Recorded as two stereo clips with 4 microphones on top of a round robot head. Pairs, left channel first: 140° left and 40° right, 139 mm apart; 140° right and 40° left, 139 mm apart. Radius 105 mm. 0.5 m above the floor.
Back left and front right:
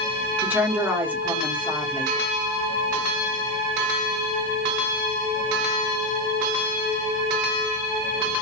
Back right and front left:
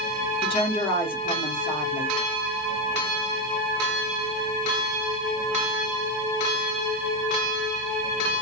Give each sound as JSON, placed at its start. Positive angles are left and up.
{"t": 0.4, "sound": "a woman speaking", "azimuth_deg": -115, "distance_m": 1.4}